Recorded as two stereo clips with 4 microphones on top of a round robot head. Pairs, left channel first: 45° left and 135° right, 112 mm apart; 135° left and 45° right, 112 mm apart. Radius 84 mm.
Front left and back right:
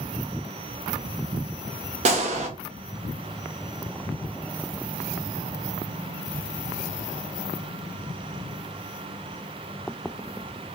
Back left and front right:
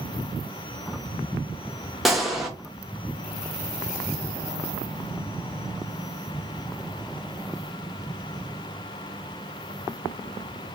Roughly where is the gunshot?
Behind right.